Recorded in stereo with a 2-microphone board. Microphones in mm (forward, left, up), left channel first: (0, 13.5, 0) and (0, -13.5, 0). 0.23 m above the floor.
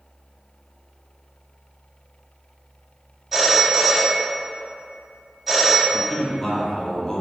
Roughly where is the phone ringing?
Centre.